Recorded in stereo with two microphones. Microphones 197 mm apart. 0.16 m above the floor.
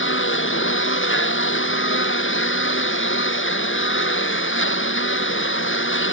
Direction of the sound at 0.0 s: 85° left.